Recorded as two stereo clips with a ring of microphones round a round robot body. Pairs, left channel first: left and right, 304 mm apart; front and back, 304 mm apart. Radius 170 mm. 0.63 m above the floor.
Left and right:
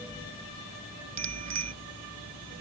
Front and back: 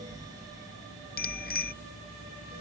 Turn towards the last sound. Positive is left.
turn(degrees=-60)